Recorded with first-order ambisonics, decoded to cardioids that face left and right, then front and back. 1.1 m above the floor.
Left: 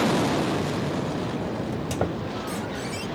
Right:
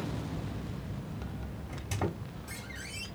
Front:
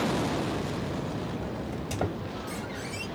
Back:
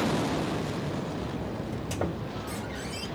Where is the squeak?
85° left, 1.7 m.